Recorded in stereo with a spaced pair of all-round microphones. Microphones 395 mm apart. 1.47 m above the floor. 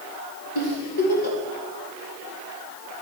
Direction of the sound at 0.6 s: 65° left (ahead or behind).